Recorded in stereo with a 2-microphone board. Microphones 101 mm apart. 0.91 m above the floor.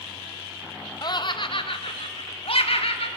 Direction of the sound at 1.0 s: 45° left (ahead or behind).